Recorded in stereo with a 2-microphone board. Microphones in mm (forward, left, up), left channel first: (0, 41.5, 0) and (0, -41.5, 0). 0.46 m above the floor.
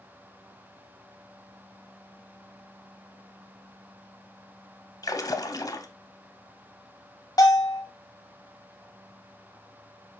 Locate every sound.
5.0 s a splash: 50° left (ahead or behind), 0.5 m
7.4 s a bell: 50° left (ahead or behind), 1.0 m